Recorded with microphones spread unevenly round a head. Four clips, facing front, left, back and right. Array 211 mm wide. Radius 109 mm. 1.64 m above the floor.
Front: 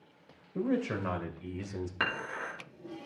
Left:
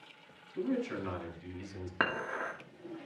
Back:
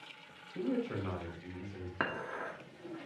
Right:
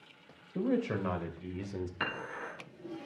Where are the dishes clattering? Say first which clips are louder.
Left 4 dB, even; 110° left, 1.8 m.